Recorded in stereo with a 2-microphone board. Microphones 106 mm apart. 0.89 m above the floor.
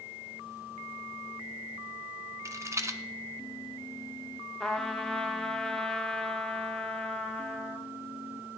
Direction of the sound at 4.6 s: 5° left (ahead or behind).